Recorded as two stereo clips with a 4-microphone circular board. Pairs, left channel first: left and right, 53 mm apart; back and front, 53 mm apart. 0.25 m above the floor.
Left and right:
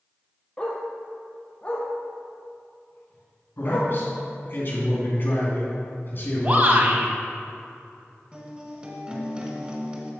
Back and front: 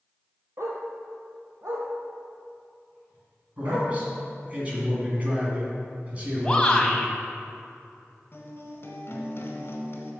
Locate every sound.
0.6 s a dog barking: 20° left, 1.4 m; by 3.9 s 30° left, 4 m
3.6 s a man speaking: 55° left, 2.5 m
6.4 s a shout: 115° right, 1.2 m
8.3 s a guitar: 155° right, 1.4 m